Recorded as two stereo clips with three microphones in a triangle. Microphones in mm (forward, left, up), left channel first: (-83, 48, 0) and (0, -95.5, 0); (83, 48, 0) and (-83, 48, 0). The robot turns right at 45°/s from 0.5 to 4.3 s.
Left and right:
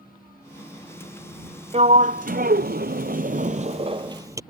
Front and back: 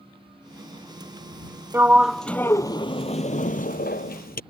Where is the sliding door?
105° right; by 4.4 s 10° left.